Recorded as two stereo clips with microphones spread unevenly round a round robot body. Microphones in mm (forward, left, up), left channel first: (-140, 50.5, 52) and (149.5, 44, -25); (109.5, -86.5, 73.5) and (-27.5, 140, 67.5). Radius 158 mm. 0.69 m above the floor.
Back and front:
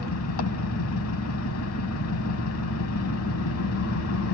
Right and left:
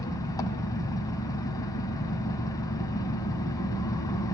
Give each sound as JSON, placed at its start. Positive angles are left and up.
{"t": 0.0, "sound": "an engine running", "azimuth_deg": -135, "distance_m": 1.8}